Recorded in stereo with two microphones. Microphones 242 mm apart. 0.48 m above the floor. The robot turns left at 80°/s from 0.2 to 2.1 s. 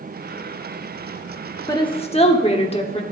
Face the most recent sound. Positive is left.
turn(degrees=25)  # may be behind; listen again after turning